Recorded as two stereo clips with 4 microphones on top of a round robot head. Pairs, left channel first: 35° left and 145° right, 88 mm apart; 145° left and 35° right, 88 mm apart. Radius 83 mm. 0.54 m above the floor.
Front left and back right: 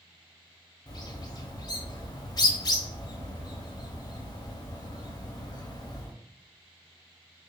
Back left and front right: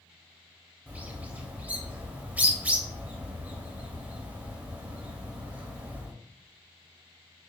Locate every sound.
0.9 s a bird: 30° left, 0.9 m